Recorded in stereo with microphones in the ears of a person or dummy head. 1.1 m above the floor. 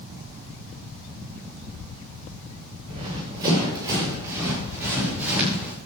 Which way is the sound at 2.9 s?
25° right (ahead or behind).